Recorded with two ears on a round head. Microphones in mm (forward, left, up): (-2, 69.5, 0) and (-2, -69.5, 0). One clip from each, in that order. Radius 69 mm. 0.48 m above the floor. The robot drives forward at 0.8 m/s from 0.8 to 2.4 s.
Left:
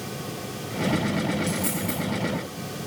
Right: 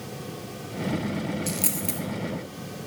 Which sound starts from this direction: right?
A dropped coin, at 1.5 s.